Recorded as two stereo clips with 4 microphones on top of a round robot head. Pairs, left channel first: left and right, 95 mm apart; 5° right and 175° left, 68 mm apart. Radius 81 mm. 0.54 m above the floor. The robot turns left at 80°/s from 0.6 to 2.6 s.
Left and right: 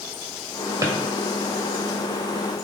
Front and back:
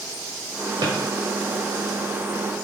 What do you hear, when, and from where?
0.8 s a drawer: 150° right, 0.9 m; by 0.9 s 160° right, 0.9 m